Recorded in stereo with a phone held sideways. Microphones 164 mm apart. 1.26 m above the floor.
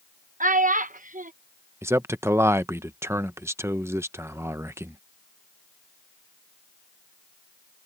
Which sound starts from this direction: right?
A child speaking, at 0.4 s.